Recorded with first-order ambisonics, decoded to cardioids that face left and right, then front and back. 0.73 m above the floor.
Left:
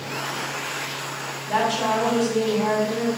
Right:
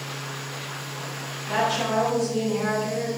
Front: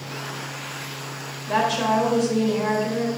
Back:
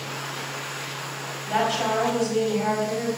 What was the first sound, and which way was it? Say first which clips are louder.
A woman speaking: left 2 dB, front 2 dB; 5° left.